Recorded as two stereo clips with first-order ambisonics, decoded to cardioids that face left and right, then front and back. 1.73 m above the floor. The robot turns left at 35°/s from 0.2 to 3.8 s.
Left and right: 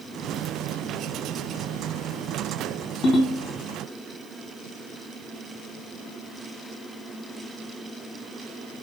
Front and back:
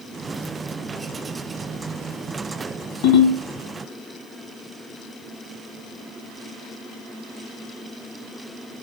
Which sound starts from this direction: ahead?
A ringtone, at 3.0 s.